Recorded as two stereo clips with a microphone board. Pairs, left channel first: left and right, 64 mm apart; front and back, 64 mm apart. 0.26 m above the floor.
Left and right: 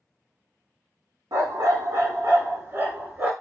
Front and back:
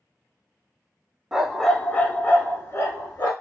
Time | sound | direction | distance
1.3 | a dog barking | 100° right | 0.7 m